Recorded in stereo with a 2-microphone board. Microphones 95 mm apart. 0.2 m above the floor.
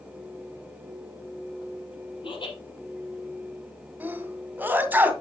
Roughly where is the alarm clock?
I don't hear an alarm clock.